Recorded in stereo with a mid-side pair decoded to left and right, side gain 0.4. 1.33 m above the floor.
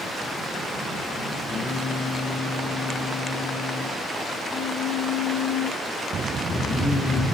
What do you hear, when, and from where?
1.5 s singing: 40° left, 6 m